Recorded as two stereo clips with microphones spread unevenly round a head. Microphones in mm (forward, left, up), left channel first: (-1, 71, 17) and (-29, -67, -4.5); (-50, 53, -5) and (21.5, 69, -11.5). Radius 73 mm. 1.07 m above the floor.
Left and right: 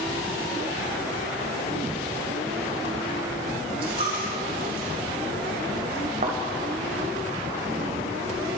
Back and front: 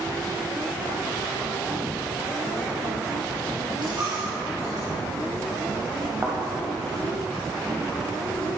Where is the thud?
55° right, 1.3 m.